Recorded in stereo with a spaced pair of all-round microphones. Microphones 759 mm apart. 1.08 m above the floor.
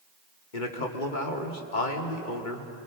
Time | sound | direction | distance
0.5 | a man speaking | 90° left | 2.5 m